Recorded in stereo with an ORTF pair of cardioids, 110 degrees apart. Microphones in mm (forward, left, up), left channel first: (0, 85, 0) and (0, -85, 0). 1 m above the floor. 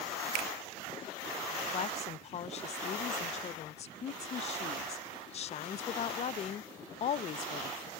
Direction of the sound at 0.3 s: 65° right.